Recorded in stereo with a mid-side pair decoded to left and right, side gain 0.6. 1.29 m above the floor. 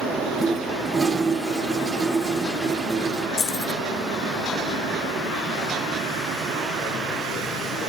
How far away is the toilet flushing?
About 1.2 m.